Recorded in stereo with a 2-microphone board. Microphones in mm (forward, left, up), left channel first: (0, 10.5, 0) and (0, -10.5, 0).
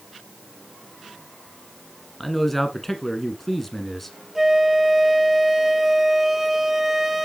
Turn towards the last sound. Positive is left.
turn(degrees=-15)  # may be behind; listen again after turning